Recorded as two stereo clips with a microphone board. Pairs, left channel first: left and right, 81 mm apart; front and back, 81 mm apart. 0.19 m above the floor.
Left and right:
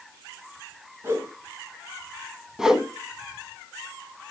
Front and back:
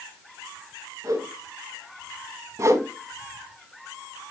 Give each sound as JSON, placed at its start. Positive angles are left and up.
{"t": 1.0, "sound": "a whoosh", "azimuth_deg": -140, "distance_m": 1.6}
{"t": 2.6, "sound": "a whoosh", "azimuth_deg": -165, "distance_m": 0.9}